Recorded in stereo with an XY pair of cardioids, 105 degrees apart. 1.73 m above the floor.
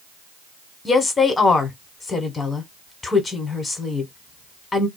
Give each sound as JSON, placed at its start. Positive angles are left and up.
{"t": 0.8, "sound": "a woman speaking", "azimuth_deg": 30, "distance_m": 1.3}